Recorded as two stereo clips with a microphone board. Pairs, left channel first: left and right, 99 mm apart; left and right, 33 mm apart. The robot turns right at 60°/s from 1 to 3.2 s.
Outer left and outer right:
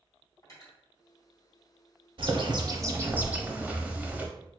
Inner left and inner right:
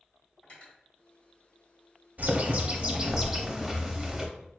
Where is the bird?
80° right, 0.7 m; by 4.3 s 20° right, 0.7 m.